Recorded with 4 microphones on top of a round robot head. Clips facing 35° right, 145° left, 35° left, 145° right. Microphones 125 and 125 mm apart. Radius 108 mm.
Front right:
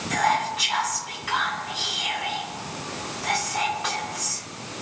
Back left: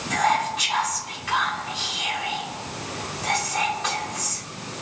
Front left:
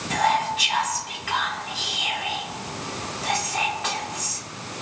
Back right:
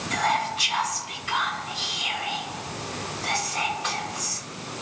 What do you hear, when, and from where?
0.1 s whispering: 50° left, 2.5 m